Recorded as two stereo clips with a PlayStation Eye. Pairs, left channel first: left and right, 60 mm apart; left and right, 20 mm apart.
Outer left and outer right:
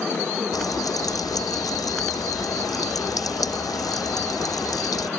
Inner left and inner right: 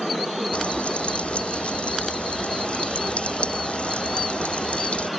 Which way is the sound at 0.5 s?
85° left.